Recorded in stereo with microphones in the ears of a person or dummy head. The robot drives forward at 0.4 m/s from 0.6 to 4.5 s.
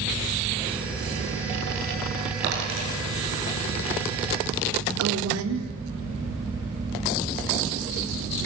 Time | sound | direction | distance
2.4 | a dropped coin | 85° right | 9.5 m
5.0 | a woman speaking | 80° right | 3.5 m